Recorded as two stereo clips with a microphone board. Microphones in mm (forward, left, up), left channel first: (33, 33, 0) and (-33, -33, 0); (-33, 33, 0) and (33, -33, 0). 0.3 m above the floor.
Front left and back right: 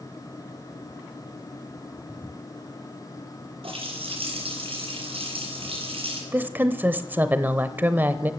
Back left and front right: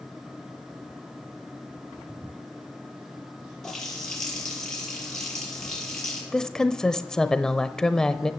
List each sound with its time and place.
3.6 s a running tap: 140° right, 5.5 m
6.3 s a woman speaking: 155° right, 0.9 m